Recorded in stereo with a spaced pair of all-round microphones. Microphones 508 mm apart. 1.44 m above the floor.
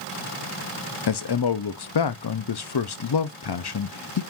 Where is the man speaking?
50° left (ahead or behind), 0.5 m.